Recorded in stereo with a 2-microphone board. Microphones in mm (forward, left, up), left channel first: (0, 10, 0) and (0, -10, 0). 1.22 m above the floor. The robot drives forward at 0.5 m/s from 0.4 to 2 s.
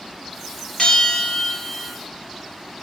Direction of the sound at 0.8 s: 40° left (ahead or behind).